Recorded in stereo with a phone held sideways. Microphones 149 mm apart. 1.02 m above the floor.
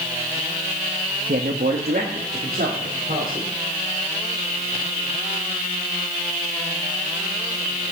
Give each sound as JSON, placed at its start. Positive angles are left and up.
{"t": 1.3, "sound": "a man speaking", "side_deg": -80, "distance_m": 1.0}